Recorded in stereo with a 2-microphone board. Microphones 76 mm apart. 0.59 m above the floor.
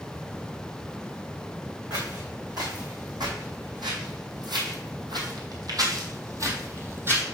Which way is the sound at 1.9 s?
60° right (ahead or behind).